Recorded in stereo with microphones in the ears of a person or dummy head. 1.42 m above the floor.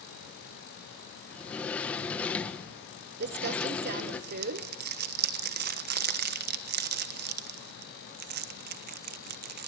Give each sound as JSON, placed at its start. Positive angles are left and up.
{"t": 1.3, "sound": "a sliding door", "side_deg": 5, "distance_m": 1.3}
{"t": 3.2, "sound": "crumpling", "side_deg": -50, "distance_m": 1.1}